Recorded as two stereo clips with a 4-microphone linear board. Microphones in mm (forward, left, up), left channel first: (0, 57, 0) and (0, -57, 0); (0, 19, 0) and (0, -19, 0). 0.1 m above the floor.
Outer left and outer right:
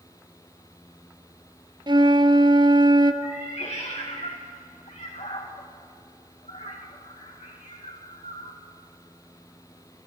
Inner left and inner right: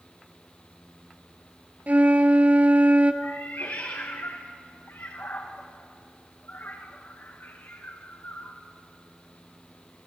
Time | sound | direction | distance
1.9 | a flute | 45° right (ahead or behind) | 0.7 m
3.2 | a cat meowing | 80° left | 2.5 m